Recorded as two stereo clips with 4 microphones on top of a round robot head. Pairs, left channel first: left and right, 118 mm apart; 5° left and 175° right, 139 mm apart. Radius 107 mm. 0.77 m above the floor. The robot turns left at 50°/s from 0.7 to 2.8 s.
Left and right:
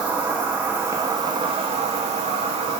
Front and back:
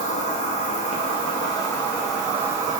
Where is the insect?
15° right, 0.9 m; by 2.8 s 120° right, 0.9 m.